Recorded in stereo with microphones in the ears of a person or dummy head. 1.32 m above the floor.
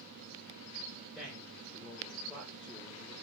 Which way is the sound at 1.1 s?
5° left (ahead or behind).